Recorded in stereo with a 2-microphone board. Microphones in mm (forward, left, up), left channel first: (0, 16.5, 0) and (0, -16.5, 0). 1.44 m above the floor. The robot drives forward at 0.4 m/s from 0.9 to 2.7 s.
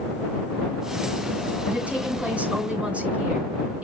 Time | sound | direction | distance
1.7 | a woman speaking | 45° right (ahead or behind) | 6.5 m